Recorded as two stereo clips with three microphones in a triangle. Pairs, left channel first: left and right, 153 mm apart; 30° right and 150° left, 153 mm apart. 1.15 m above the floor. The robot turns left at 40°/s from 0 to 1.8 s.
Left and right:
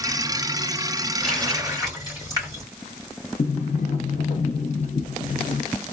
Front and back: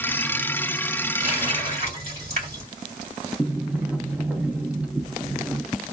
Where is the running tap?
175° left, 3 m; by 2.6 s 155° left, 3 m.